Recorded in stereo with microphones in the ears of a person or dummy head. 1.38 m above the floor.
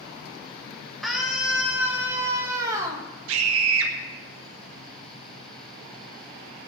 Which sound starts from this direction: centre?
A scream, at 1.0 s.